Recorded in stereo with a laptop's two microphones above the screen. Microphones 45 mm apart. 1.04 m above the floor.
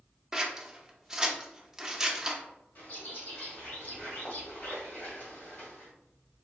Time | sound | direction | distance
0.3 | scissors | 10° right (ahead or behind) | 0.7 m
2.8 | a bird | 45° left (ahead or behind) | 1.7 m